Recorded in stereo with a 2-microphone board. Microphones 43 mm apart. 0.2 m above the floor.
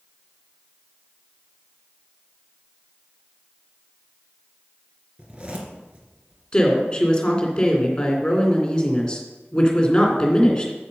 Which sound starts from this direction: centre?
A woman speaking, at 6.5 s.